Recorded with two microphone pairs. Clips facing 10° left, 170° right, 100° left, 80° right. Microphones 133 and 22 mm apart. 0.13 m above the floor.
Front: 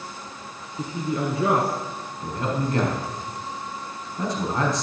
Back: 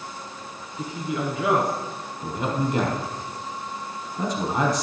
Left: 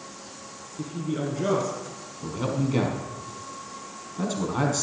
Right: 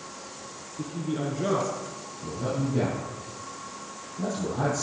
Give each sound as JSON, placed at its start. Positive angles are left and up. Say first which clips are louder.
{"t": 0.8, "sound": "a man speaking", "louder": "front 2 dB, left 1 dB", "azimuth_deg": 15, "distance_m": 1.9}
{"t": 2.2, "sound": "a man speaking", "louder": "back 1 dB, left 2 dB", "azimuth_deg": 110, "distance_m": 4.5}